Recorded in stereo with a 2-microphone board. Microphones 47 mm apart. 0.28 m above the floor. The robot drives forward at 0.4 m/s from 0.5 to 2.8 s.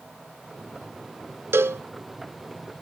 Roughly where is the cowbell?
Right.